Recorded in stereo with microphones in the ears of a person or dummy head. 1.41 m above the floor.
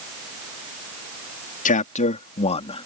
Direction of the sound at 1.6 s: 45° left (ahead or behind).